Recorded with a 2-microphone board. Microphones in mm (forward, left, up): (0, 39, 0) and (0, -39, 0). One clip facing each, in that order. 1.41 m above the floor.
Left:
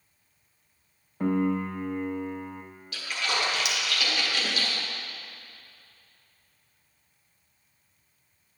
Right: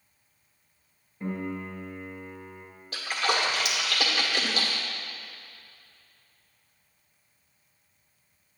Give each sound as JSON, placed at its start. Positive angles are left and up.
{"t": 1.2, "sound": "a piano", "side_deg": 80, "distance_m": 0.6}
{"t": 2.9, "sound": "a splash", "side_deg": -40, "distance_m": 1.2}